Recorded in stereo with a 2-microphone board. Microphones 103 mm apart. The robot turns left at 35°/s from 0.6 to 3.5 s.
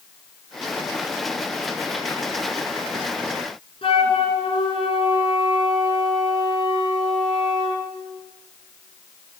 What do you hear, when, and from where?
3.8 s a flute: 60° left (ahead or behind), 3.5 m